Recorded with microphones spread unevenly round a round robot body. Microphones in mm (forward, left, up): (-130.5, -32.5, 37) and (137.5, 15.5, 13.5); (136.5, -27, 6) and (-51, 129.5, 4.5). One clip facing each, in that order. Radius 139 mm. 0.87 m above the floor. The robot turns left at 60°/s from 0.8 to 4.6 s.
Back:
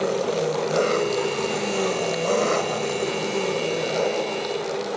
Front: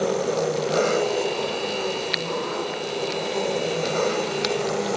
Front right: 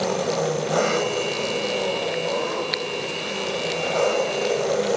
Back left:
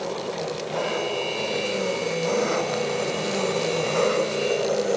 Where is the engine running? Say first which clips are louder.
Even, front right 6 dB; 80° right, 2 m; by 5.0 s 50° left, 2 m.